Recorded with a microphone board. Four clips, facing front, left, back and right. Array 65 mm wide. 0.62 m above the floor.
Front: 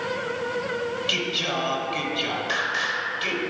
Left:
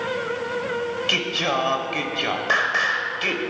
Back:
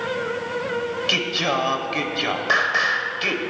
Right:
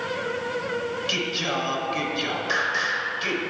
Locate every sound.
1.1 s singing: 140° left, 0.8 m